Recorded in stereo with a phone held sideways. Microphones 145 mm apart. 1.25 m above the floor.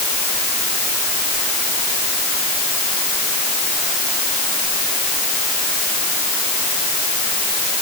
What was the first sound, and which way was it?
Only background noise.